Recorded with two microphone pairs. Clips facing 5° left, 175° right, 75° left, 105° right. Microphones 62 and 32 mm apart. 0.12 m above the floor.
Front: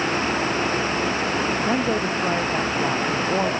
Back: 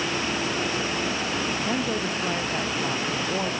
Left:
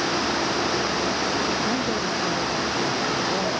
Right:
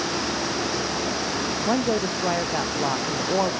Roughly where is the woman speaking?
Ahead right.